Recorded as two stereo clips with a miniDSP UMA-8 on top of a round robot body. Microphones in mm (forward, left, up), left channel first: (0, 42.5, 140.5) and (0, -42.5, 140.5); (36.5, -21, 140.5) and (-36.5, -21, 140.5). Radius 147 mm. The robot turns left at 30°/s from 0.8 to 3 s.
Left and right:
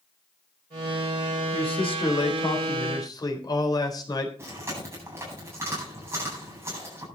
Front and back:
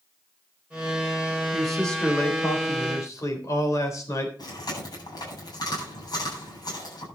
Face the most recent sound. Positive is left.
turn(degrees=-25)